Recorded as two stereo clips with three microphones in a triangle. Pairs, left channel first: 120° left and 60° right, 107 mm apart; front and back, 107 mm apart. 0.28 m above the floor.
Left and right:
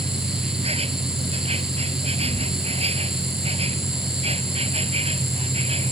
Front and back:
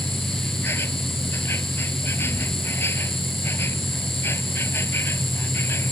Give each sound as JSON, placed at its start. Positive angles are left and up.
{"t": 0.0, "sound": "an insect", "azimuth_deg": -65}